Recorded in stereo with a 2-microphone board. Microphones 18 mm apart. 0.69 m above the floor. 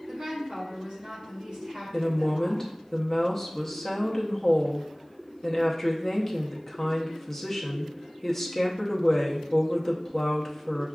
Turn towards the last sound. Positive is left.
turn(degrees=20)  # may be behind; listen again after turning